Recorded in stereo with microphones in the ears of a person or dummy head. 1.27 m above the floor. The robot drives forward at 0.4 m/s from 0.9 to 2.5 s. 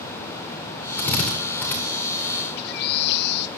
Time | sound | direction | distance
1.0 | a drill | 10° left (ahead or behind) | 4.5 m
2.6 | a bird | 60° left (ahead or behind) | 0.9 m